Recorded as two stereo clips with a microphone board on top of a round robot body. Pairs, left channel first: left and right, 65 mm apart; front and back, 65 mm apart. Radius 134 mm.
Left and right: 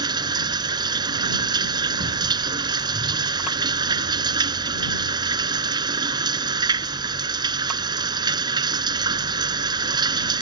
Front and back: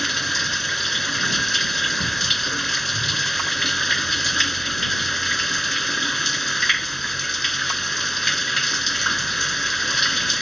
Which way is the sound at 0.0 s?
90° right.